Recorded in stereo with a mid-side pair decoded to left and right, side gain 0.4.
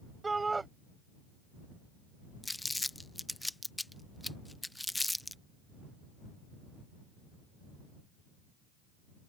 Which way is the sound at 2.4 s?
10° left.